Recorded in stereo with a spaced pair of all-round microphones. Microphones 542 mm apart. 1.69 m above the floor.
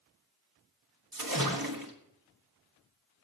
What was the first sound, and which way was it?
A splash, 40° right (ahead or behind).